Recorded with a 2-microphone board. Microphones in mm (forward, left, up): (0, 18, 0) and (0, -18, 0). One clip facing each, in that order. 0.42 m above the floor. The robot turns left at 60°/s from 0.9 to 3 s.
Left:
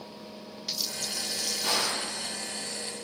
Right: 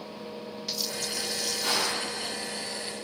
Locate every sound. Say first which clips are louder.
1.6 s a gunshot: even; 15° right (ahead or behind), 2.0 m; by 2.1 s 10° left (ahead or behind), 2.0 m